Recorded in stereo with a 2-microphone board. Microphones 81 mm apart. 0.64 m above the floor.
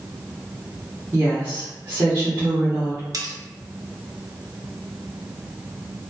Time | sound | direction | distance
1.1 | a woman speaking | 35° right (ahead or behind) | 1.1 m
3.1 | cutlery clinking | 50° right (ahead or behind) | 0.5 m